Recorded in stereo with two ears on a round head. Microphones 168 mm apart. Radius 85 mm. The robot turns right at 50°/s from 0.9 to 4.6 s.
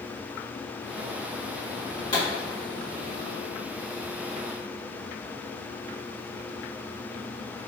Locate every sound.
2.1 s a pop: 30° left (ahead or behind), 1.7 m; by 2.3 s 35° left (ahead or behind), 1.7 m